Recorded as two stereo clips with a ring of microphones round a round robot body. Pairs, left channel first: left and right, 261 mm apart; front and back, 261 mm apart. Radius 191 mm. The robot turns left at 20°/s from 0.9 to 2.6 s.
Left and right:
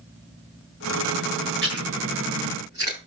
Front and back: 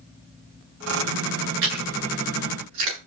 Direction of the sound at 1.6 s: 150° right.